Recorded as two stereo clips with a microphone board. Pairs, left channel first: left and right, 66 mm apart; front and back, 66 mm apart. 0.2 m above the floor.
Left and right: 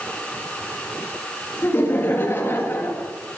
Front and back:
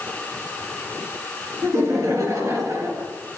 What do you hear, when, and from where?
1.6 s laughter: 140° left, 3.5 m; by 3.1 s 150° left, 5 m